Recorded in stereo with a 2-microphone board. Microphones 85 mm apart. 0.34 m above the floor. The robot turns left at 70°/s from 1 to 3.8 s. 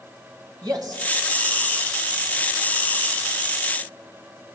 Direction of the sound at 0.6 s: 55° right (ahead or behind).